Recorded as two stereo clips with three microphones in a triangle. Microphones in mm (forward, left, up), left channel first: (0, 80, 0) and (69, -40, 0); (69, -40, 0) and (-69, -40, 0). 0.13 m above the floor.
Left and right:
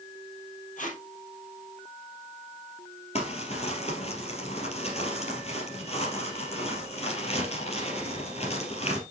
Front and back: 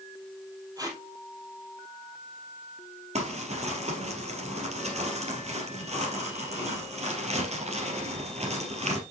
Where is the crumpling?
155° left, 2.5 m.